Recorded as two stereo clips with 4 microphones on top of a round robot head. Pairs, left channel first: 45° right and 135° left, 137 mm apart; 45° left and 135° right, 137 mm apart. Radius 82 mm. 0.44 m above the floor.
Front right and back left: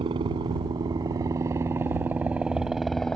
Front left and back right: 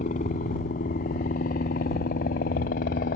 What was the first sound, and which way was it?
A helicopter, 80° left.